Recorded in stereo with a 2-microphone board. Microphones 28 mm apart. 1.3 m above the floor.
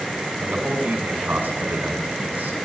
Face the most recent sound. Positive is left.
turn(degrees=-80)